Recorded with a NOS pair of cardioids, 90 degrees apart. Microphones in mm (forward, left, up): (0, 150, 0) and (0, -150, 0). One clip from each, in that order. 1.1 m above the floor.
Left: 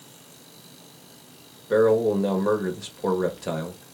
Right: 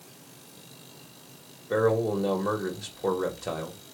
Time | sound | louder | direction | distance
1.7 | a man speaking | left 5 dB | 10° left | 1.1 m